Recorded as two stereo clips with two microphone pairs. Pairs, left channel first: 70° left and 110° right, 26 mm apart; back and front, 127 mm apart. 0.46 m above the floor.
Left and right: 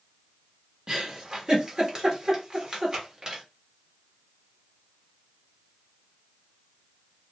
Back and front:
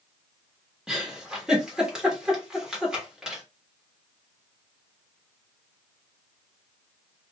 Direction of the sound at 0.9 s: 80° right.